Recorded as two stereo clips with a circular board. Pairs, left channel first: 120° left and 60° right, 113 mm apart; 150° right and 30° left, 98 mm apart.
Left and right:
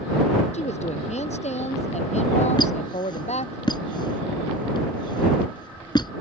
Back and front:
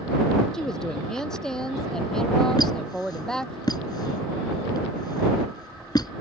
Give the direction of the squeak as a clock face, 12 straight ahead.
6 o'clock.